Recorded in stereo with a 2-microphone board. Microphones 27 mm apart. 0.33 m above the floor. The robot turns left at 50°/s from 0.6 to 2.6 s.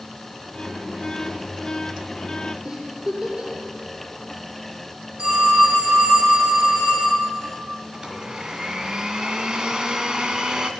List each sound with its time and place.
2.6 s a giggle: 40° right (ahead or behind), 7.5 m
5.2 s a phone ringing: 55° right (ahead or behind), 9.5 m
7.9 s a blender: 25° right (ahead or behind), 1.5 m